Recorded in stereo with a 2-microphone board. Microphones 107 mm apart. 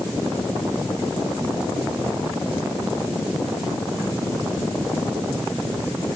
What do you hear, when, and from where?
Only background noise.